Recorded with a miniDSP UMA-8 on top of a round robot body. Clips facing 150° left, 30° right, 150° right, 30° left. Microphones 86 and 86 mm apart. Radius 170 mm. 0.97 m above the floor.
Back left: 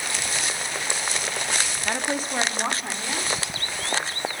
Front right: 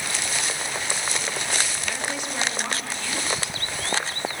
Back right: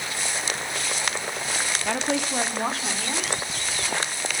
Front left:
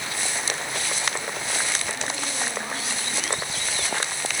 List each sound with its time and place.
1.9 s a woman speaking: 160° right, 2 m; by 4.3 s 140° right, 5 m